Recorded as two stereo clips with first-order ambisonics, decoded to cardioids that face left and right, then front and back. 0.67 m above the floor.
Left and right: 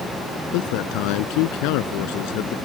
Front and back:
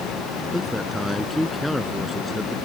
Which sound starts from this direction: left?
A man speaking, at 0.5 s.